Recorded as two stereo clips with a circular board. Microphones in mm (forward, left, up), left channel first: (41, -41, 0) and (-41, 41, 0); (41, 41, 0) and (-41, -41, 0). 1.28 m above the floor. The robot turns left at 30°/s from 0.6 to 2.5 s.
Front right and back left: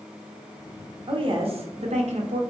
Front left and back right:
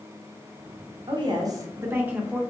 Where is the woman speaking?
Straight behind, 0.6 m; by 2.4 s 140° left, 0.6 m.